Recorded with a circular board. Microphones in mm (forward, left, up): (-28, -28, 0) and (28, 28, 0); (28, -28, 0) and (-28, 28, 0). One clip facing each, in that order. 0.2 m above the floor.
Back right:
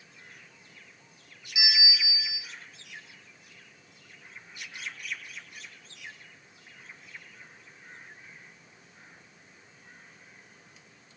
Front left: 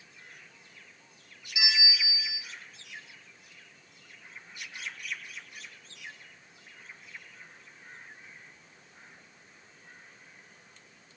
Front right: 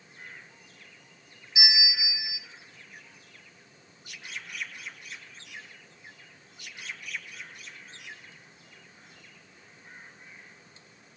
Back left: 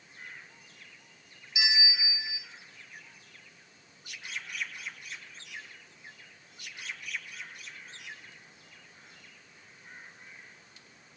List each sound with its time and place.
1.6 s a bell: 80° right, 1.2 m